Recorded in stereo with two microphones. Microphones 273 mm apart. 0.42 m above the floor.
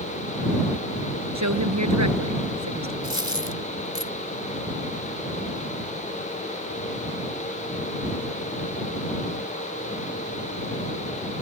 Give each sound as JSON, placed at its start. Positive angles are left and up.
{"t": 1.4, "sound": "a woman speaking", "side_deg": -70}
{"t": 3.0, "sound": "a dropped coin", "side_deg": 45}